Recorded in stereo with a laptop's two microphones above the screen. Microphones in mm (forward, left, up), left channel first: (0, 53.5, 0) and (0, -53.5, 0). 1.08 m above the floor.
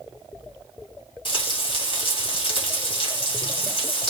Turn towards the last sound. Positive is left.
turn(degrees=50)  # may be behind; listen again after turning